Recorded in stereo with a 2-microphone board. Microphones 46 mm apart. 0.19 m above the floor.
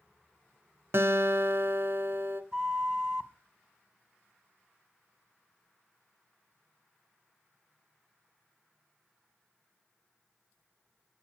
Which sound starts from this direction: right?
A guitar, at 0.9 s.